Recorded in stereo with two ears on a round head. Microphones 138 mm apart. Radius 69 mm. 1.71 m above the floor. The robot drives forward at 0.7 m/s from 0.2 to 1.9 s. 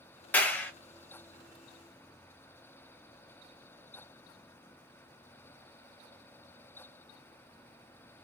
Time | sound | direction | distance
0.3 | a clap | 10° left (ahead or behind) | 1.1 m